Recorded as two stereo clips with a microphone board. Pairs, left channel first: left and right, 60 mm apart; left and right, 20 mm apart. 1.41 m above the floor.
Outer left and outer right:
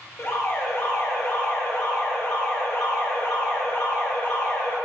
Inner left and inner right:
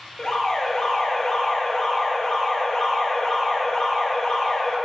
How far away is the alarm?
About 3 m.